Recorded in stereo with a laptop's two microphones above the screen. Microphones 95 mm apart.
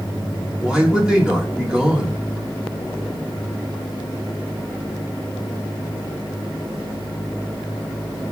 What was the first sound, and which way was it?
A man speaking, 10° right (ahead or behind).